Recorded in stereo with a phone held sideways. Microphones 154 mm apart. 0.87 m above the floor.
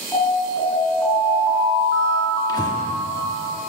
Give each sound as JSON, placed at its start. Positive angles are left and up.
{"t": 0.1, "sound": "an alarm", "side_deg": 20, "distance_m": 5.0}
{"t": 2.5, "sound": "breathing", "side_deg": 25, "distance_m": 1.2}